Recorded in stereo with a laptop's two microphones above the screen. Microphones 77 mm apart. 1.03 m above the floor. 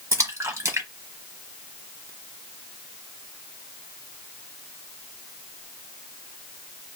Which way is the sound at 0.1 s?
40° right (ahead or behind).